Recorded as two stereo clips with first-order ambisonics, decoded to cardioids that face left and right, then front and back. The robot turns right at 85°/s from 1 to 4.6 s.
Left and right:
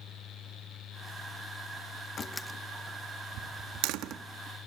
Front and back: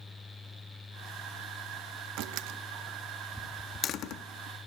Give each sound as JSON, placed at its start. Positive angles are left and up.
{"t": 2.2, "sound": "a door slam", "azimuth_deg": 155, "distance_m": 0.7}